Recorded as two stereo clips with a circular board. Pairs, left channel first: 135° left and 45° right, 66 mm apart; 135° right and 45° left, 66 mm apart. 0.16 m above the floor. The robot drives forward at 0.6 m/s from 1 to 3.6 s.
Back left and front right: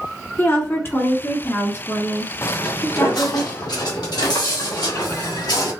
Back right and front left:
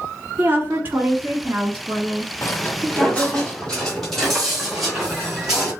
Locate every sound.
0.4 s a woman speaking: 90° left, 2 m; by 3.4 s 130° left, 2.5 m
2.4 s footsteps: straight behind, 0.8 m; by 5.7 s 125° left, 4.5 m